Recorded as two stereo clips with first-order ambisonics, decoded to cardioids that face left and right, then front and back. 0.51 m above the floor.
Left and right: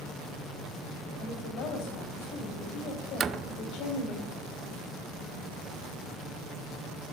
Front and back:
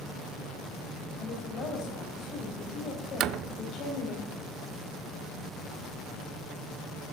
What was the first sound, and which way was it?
A woman speaking, 55° left.